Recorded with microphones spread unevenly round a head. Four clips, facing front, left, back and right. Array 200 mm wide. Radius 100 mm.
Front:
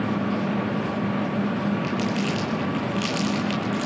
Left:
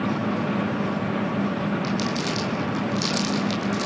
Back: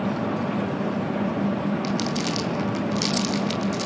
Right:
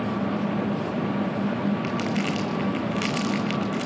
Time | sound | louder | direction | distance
1.8 | crumpling | even, even | 110° right | 1.5 m